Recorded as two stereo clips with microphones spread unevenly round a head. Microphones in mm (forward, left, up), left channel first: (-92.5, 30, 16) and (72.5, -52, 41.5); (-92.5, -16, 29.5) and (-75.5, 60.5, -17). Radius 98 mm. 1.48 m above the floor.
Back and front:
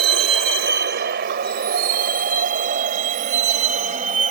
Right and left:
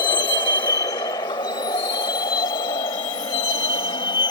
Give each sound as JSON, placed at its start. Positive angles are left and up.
{"t": 0.0, "sound": "a vehicle", "azimuth_deg": -55}